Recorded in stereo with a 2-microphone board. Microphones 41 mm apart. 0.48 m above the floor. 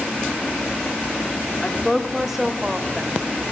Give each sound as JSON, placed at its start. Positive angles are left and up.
{"t": 1.6, "sound": "a woman speaking", "side_deg": 15, "distance_m": 0.7}